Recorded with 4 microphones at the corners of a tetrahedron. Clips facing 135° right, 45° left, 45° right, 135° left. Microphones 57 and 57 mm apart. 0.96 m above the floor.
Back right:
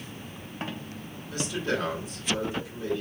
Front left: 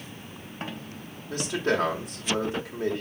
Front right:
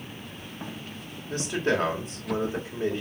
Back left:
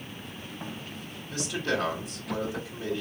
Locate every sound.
1.3 s a man speaking: straight ahead, 3 m